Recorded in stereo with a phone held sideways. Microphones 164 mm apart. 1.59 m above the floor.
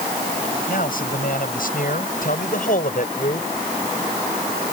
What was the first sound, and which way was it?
A man speaking, 65° left (ahead or behind).